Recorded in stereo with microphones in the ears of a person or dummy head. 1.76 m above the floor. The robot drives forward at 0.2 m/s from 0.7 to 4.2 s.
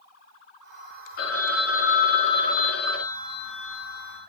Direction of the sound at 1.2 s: 55° left (ahead or behind).